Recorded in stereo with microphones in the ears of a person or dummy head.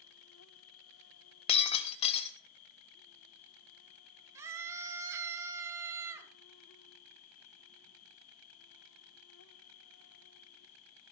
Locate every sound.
0.0 s an insect: 80° left, 0.7 m
1.5 s breaking glass: 35° left (ahead or behind), 1.4 m
4.3 s a scream: 15° right (ahead or behind), 2.5 m